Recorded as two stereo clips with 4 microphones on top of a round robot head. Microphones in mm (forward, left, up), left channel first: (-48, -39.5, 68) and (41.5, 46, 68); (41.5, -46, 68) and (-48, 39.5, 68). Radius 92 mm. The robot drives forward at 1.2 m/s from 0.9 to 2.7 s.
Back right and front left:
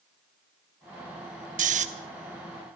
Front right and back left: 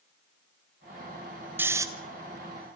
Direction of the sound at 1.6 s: 60° left.